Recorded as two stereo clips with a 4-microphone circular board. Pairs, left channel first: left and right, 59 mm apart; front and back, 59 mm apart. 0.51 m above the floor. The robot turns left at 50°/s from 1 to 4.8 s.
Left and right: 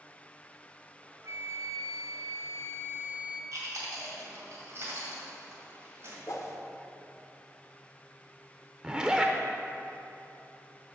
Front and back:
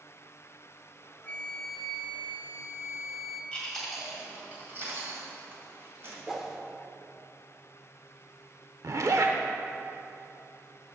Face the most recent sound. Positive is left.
turn(degrees=-165)